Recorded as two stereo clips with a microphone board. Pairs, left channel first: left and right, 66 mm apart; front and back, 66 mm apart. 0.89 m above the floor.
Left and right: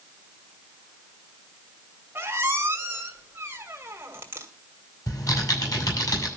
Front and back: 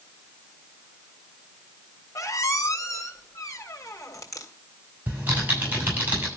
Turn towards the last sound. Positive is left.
turn(degrees=115)